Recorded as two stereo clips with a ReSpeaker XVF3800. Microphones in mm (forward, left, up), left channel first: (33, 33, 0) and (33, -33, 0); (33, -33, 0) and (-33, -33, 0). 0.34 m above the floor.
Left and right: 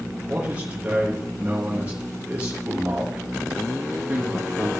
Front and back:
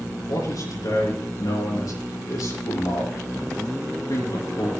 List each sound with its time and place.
0.3 s a man speaking: 20° right, 6.5 m